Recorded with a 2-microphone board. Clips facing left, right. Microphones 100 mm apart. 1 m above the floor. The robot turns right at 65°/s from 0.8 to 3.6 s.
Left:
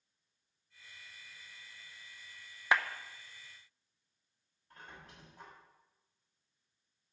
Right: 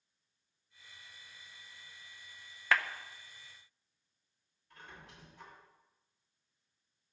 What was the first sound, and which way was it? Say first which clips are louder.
A clap: left 1 dB; 20° left (ahead or behind).